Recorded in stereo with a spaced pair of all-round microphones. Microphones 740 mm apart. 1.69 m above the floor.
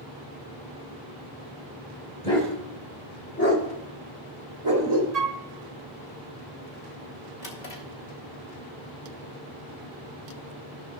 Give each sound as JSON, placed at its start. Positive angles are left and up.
{"t": 2.2, "sound": "a dog barking", "side_deg": 55, "distance_m": 3.0}
{"t": 5.1, "sound": "a flute", "side_deg": -60, "distance_m": 0.7}
{"t": 7.4, "sound": "a drawer", "side_deg": 65, "distance_m": 1.9}